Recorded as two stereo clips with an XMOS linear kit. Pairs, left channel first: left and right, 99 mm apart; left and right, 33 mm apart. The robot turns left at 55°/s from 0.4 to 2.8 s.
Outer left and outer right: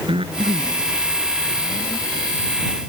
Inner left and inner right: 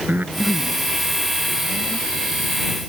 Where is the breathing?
75° right (ahead or behind); by 2.1 s 20° left (ahead or behind).